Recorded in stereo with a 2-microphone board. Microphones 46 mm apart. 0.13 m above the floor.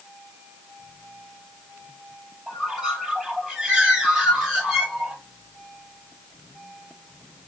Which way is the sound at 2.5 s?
10° right (ahead or behind).